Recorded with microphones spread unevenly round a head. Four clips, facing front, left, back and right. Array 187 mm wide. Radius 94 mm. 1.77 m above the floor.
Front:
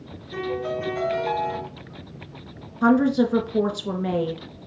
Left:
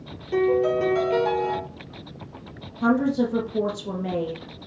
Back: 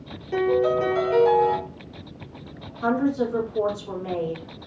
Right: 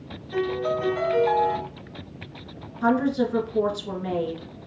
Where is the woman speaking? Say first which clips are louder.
Left 1 dB, front 4 dB; 15° left, 2.0 m.